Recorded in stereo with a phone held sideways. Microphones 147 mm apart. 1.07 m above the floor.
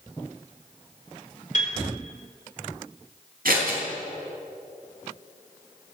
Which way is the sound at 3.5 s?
80° right.